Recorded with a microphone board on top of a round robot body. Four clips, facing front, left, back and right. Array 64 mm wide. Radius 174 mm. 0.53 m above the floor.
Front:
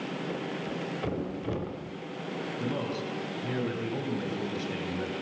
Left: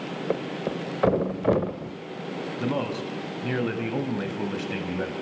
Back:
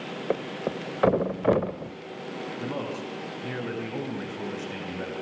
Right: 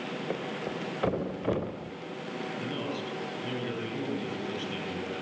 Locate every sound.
0.3 s a thud: 155° left, 1.2 m
2.6 s a man speaking: 105° left, 4 m